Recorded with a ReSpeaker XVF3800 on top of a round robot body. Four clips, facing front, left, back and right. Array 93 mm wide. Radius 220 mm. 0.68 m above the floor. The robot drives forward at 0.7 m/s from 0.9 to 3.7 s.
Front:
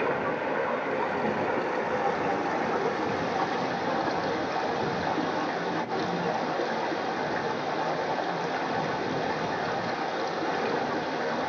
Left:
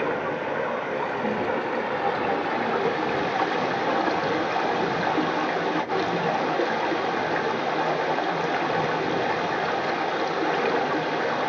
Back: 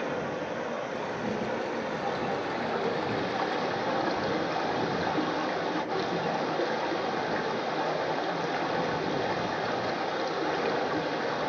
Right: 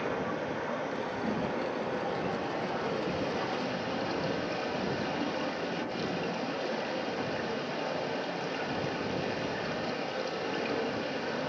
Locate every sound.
0.0 s running water: 50° left, 3.5 m; by 11.5 s 85° left, 3 m